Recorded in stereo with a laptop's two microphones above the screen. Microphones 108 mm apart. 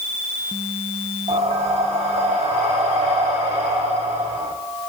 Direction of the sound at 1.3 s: 75° right (ahead or behind).